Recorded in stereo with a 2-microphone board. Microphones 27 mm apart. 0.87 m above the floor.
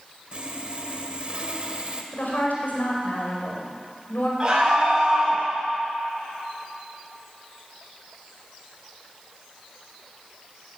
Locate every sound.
0.3 s sawing: 40° right (ahead or behind), 1.3 m
2.1 s a woman speaking: 80° left, 5 m
4.4 s a scream: 20° right (ahead or behind), 6.5 m